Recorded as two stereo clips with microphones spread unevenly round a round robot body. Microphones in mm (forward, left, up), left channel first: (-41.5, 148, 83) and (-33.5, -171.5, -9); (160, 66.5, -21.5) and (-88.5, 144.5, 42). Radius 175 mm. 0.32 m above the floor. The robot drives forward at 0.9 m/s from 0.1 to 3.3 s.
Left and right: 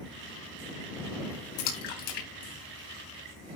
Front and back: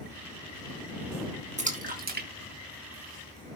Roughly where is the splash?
Left.